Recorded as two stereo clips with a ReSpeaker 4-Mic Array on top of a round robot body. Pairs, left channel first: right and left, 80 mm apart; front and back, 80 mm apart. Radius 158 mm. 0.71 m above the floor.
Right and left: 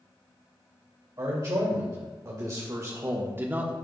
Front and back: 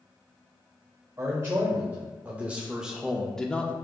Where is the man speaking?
125° left, 2 m; by 3.7 s 40° left, 1.1 m.